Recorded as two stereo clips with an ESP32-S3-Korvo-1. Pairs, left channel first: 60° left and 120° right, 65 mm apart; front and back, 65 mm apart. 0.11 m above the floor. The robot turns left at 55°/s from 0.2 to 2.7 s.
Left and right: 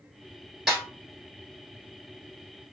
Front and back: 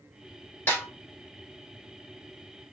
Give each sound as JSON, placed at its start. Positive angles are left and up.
{"t": 0.7, "sound": "a snare drum", "azimuth_deg": -30, "distance_m": 1.8}